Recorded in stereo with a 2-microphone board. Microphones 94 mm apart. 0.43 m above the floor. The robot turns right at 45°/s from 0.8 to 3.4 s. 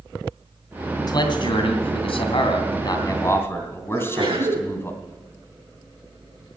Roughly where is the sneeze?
Right.